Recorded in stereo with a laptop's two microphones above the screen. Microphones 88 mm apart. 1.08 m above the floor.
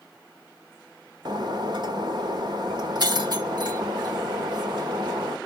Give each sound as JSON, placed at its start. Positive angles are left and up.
{"t": 1.2, "sound": "breaking glass", "side_deg": -55, "distance_m": 1.4}